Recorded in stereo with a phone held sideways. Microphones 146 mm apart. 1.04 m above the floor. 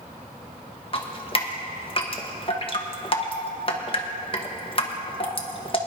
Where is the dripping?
40° left (ahead or behind), 1.3 m.